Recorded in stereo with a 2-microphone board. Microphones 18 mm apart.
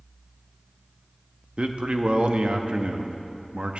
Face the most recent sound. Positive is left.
turn(degrees=-70)  # may be behind; listen again after turning